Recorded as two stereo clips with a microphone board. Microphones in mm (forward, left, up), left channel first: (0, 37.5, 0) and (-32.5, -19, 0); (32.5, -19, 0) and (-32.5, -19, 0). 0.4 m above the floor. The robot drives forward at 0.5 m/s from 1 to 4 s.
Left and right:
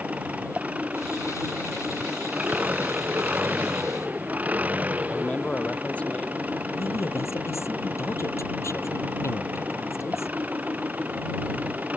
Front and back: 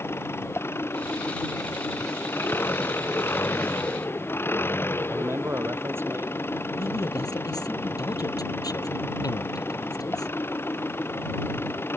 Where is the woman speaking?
15° left.